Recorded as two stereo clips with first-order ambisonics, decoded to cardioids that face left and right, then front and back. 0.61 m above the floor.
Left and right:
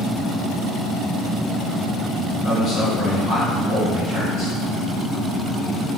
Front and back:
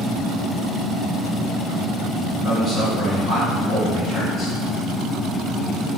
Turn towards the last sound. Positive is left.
turn(degrees=50)